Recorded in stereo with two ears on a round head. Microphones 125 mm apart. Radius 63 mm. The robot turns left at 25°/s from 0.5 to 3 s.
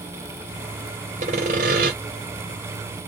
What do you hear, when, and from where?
1.2 s sawing: 50° right (ahead or behind), 1.4 m; by 1.9 s 65° right (ahead or behind), 1.4 m